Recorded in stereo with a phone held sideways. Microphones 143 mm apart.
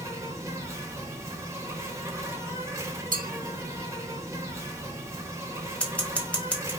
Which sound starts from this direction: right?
A clink, at 3.1 s.